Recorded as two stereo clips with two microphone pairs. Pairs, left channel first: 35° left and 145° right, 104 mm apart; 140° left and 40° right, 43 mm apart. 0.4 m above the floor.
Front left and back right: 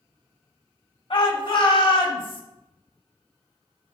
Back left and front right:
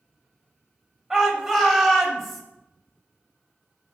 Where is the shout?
35° left, 2.5 m; by 2.4 s 50° left, 2.5 m.